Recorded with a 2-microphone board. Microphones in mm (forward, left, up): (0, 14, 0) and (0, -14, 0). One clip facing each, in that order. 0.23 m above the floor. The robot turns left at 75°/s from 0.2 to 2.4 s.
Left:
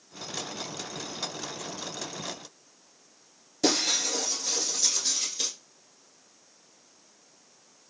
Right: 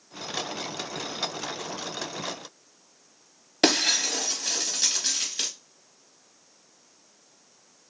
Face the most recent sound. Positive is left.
turn(degrees=-75)  # may be behind; listen again after turning